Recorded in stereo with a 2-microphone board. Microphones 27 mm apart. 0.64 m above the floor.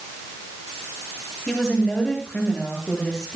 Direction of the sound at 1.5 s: 10° left (ahead or behind).